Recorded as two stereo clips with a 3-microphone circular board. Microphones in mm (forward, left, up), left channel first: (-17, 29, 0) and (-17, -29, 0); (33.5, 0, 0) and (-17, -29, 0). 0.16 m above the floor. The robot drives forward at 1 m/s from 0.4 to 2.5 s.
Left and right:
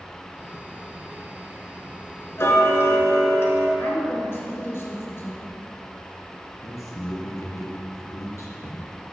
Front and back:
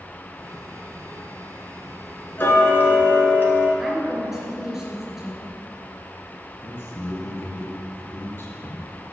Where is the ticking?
70° left, 1.6 m; by 3.7 s 75° left, 1.6 m.